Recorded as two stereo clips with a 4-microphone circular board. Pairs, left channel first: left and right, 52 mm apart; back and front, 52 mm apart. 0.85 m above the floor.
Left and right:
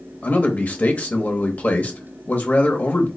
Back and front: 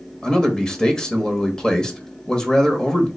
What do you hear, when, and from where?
0.2 s a man speaking: 115° left, 0.7 m